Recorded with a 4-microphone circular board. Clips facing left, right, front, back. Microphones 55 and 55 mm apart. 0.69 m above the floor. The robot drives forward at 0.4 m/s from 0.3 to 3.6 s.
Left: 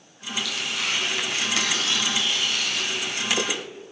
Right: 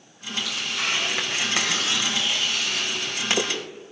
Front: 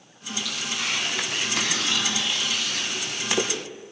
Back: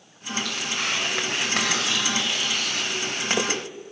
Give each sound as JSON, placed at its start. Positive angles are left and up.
{"t": 0.5, "sound": "tearing paper", "azimuth_deg": -145, "distance_m": 4.0}